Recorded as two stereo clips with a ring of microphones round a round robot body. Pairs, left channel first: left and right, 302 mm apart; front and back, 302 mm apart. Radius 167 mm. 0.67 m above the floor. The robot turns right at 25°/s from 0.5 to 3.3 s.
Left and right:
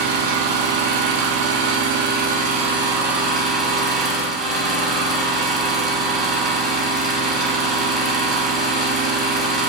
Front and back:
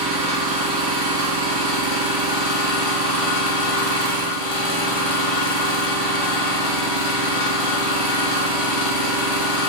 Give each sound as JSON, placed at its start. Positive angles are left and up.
{"t": 0.0, "sound": "an engine running", "azimuth_deg": -70, "distance_m": 0.7}